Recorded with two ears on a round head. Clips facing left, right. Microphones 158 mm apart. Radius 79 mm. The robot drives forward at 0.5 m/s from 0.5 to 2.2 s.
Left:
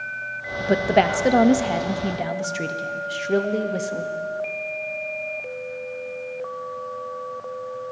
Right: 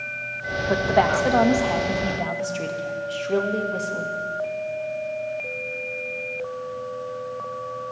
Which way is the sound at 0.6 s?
25° left (ahead or behind).